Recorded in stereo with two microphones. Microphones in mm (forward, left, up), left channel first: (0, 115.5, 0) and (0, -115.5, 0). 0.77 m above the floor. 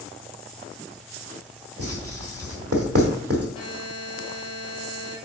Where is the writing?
65° right (ahead or behind), 1.7 m.